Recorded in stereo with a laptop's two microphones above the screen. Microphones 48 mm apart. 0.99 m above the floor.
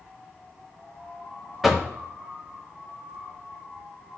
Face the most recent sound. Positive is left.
turn(degrees=0)  # may be behind; listen again after turning